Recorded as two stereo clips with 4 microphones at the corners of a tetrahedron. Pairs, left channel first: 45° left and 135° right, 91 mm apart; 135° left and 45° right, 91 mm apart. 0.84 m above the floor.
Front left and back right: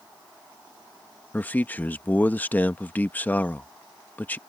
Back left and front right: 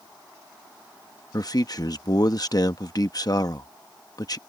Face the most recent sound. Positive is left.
turn(degrees=110)